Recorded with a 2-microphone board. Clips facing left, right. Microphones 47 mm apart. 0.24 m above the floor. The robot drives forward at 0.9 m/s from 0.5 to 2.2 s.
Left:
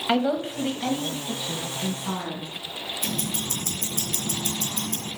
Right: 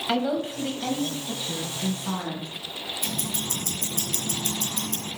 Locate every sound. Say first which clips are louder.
0.1 s a woman speaking: left 2 dB; 20° left (ahead or behind), 1.0 m; by 2.5 s 10° left (ahead or behind), 1.8 m
3.0 s ticking: left 2 dB; 50° left (ahead or behind), 2.5 m